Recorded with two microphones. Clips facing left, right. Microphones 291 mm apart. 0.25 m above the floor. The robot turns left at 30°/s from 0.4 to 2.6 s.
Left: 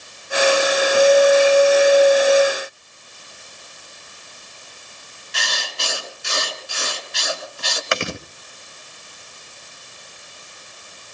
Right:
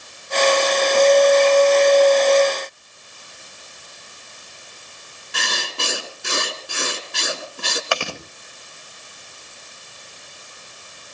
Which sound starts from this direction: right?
Writing, at 5.3 s.